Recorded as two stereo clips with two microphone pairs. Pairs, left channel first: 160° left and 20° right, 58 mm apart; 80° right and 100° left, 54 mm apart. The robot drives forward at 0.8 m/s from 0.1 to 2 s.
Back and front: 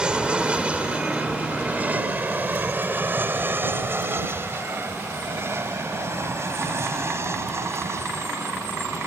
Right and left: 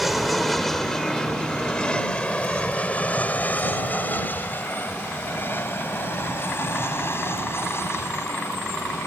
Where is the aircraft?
15° left; by 9.1 s 55° right.